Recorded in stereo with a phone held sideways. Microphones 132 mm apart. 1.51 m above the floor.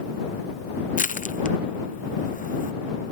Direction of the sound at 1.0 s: 70° left (ahead or behind).